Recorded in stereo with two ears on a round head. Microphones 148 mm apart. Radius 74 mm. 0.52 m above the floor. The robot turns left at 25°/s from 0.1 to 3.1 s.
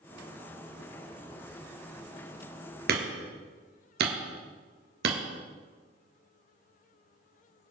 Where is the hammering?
60° right (ahead or behind), 2.5 m; by 5.2 s 65° right (ahead or behind), 2.5 m.